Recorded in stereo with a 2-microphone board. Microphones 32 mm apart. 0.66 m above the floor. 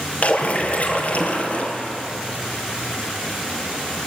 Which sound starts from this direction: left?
A splash, at 0.2 s.